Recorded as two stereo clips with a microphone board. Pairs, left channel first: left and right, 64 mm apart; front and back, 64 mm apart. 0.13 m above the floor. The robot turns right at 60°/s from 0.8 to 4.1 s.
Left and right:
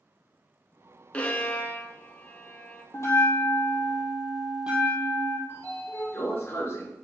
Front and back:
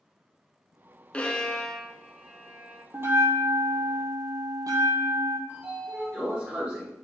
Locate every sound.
1.1 s a violin: 45° left, 0.6 m; by 2.8 s 150° left, 0.6 m
2.9 s a bell: 125° left, 1.2 m; by 5.4 s 165° right, 1.2 m
5.5 s a sliding door: 120° left, 1.6 m